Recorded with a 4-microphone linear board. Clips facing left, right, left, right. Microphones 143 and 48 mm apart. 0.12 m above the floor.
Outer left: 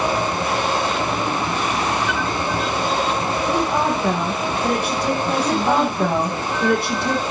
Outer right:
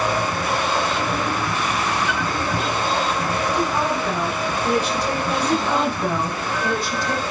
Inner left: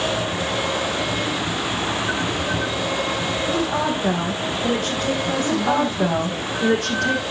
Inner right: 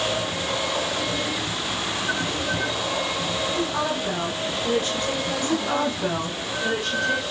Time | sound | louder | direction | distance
3.5 | a woman speaking | outer left 3 dB, inner left 4 dB | 65° left (ahead or behind) | 4.5 m
5.4 | a woman speaking | outer left 2 dB, inner left 3 dB | 65° left (ahead or behind) | 4.5 m